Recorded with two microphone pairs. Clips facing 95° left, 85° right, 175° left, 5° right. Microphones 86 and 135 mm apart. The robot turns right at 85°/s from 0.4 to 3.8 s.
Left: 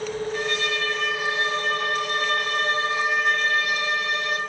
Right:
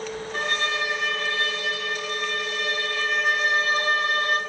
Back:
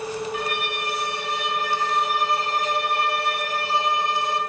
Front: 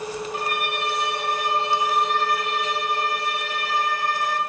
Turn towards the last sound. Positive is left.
turn(degrees=-125)